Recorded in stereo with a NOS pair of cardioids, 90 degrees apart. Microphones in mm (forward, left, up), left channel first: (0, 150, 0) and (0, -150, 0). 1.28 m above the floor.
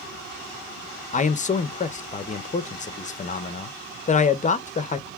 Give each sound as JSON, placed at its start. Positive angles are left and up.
{"t": 1.1, "sound": "a man speaking", "azimuth_deg": 25, "distance_m": 0.6}